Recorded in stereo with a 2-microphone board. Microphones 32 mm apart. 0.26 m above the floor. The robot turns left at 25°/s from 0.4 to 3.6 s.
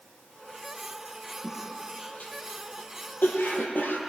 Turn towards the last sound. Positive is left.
turn(degrees=80)